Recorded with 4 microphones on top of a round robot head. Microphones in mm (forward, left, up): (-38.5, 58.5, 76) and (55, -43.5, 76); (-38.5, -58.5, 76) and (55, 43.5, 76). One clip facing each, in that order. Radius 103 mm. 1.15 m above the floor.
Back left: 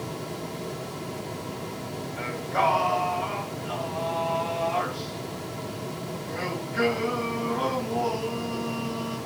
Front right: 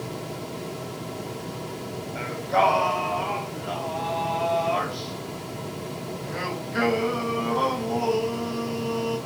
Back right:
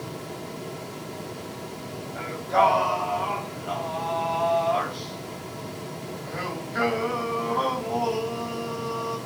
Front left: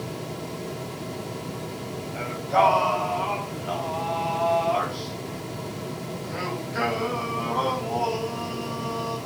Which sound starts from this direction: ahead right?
Singing, at 2.1 s.